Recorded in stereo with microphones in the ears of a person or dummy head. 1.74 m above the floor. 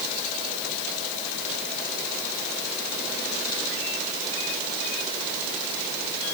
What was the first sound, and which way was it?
Only background noise.